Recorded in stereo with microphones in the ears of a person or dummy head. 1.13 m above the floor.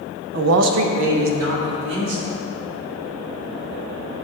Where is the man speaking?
55° right (ahead or behind), 0.5 m; by 2.3 s 65° right (ahead or behind), 3 m.